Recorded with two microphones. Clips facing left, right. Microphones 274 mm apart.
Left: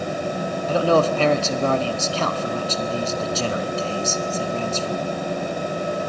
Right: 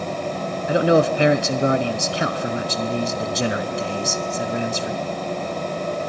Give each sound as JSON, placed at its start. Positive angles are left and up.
{"t": 0.7, "sound": "a man speaking", "side_deg": -15, "distance_m": 1.0}